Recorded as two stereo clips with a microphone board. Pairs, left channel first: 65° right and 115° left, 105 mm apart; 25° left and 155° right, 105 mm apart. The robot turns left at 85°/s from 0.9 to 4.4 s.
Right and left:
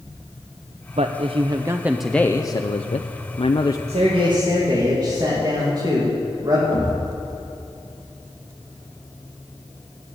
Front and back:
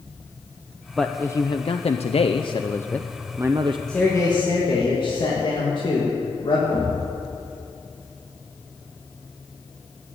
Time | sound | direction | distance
1.0 | a man speaking | 115° left | 0.5 m
3.9 | a man speaking | 110° left | 2.5 m
6.7 | a thud | 90° left | 3.5 m